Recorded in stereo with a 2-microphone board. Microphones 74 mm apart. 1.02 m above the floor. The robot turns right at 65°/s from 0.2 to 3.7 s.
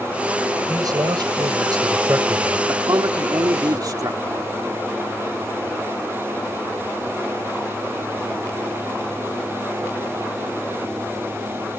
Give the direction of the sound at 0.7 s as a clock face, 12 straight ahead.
4 o'clock.